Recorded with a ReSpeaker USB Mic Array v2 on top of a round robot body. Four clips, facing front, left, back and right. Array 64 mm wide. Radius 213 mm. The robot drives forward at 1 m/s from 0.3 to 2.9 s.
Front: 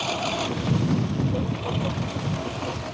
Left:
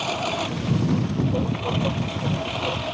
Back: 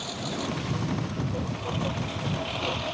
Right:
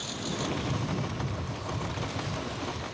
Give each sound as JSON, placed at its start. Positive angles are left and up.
{"t": 0.0, "sound": "a lawn mower", "azimuth_deg": 60}